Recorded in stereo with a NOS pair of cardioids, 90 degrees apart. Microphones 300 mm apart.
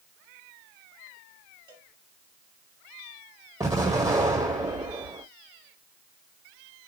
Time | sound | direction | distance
1.7 | a cowbell | 15° right | 6.5 m
3.6 | an explosion | 15° right | 6 m